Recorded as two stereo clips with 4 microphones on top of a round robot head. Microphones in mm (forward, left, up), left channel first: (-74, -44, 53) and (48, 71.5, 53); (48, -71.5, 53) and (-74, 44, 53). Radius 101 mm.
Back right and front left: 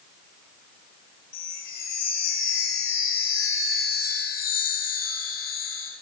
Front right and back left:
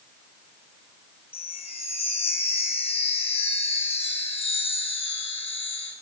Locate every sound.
1.3 s a chime: 100° right, 5.5 m